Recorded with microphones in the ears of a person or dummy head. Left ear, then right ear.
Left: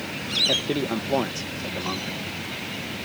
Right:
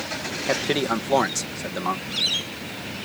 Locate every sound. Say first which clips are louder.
0.5 s a man speaking: right 1 dB; 55° right (ahead or behind)